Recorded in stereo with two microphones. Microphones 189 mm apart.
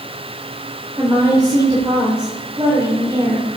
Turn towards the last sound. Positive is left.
turn(degrees=-20)  # may be behind; listen again after turning